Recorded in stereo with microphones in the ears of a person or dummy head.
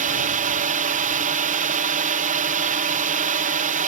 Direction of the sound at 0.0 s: 40° right (ahead or behind).